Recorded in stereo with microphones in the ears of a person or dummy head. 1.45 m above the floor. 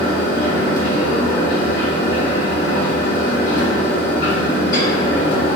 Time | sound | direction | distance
0.0 | a fan | 30° left (ahead or behind) | 1.5 m